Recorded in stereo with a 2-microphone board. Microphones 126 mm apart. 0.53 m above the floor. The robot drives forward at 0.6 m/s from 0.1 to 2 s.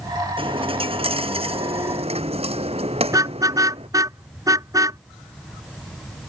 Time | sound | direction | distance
0.4 | a dropped coin | 45° right (ahead or behind) | ?
3.1 | a car horn | 25° right (ahead or behind) | ?